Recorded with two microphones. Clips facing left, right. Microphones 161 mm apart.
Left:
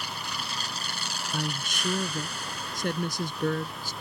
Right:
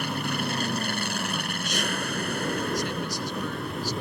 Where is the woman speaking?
50° left (ahead or behind).